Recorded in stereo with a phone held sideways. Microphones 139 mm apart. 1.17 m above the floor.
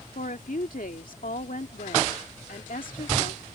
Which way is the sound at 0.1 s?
80° left.